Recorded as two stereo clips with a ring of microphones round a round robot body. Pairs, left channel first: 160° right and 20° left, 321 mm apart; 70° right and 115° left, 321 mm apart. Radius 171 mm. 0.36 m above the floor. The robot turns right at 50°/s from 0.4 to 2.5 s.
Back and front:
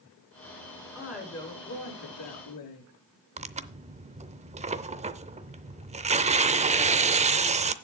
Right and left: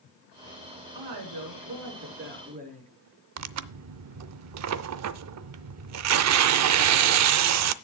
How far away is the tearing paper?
About 0.6 m.